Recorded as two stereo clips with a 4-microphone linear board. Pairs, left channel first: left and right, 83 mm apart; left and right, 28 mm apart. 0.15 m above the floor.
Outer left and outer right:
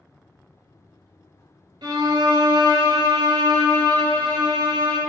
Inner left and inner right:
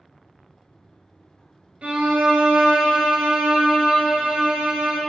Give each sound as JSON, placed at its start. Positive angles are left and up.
{"t": 1.8, "sound": "a violin", "side_deg": -65, "distance_m": 0.5}